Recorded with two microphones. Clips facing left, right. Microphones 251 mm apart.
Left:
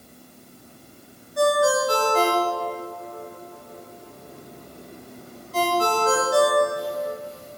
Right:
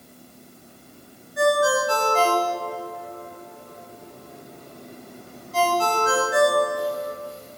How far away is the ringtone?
About 2 m.